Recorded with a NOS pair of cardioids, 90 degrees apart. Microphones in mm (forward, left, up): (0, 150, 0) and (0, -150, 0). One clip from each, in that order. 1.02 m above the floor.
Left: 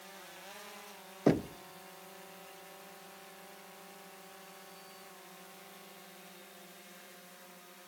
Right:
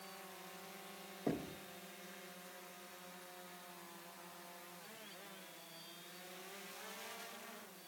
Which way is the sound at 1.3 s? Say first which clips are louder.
Left 12 dB; 60° left.